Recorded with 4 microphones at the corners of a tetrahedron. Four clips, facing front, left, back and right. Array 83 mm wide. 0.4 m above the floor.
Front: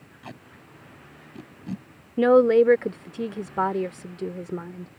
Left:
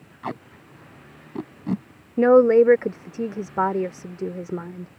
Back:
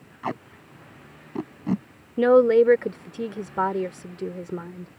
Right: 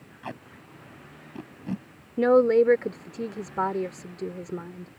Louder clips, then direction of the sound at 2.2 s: Left 5 dB, even; 100° left.